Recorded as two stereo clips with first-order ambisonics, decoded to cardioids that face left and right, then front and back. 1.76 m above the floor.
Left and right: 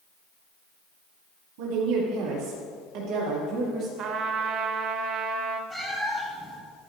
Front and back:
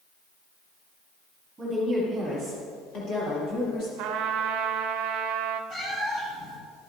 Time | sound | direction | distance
1.6 | a woman speaking | 100° right | 1.8 m
4.0 | a trumpet | 145° right | 0.7 m
5.7 | a cat meowing | 15° left | 1.7 m